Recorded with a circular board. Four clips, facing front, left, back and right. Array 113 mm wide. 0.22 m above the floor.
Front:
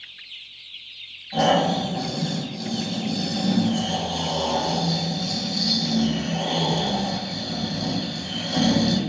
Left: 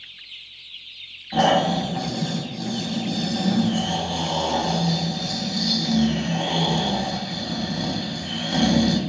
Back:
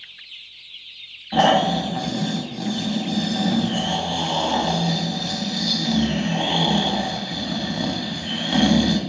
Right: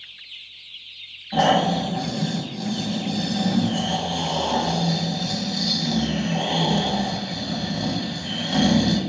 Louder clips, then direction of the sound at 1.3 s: Even, back 3 dB; straight behind.